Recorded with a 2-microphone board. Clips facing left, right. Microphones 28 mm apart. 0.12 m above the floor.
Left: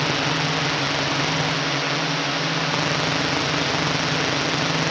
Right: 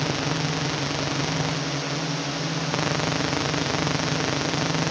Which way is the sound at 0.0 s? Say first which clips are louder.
Left 4 dB; 30° left (ahead or behind).